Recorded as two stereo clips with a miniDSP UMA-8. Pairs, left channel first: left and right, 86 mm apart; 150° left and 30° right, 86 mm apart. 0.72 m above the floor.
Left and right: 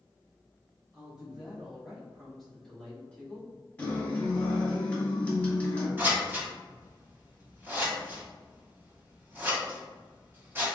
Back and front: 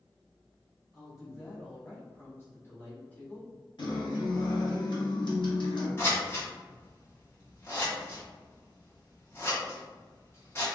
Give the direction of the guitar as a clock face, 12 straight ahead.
7 o'clock.